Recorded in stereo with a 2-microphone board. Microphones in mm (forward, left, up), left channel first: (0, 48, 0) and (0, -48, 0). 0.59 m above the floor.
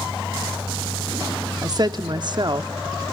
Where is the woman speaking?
40° right (ahead or behind), 0.9 m; by 3.1 s 45° right (ahead or behind), 1.1 m.